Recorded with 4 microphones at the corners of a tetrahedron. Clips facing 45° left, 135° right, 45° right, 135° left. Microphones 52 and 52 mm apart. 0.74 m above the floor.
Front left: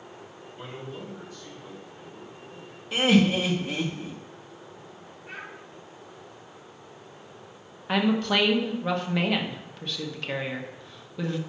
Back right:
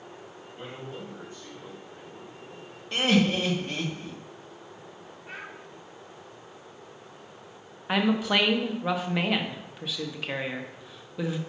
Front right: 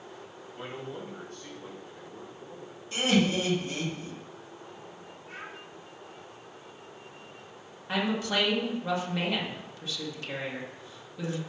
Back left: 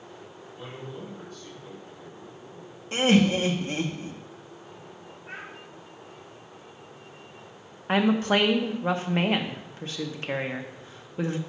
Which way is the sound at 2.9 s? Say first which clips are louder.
Front left 2 dB, back left 4 dB; 125° left.